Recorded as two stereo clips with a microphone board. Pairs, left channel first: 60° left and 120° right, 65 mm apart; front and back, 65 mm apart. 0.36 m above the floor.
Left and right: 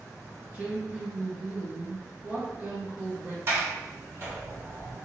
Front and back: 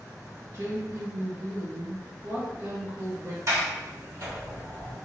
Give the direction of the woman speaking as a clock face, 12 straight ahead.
6 o'clock.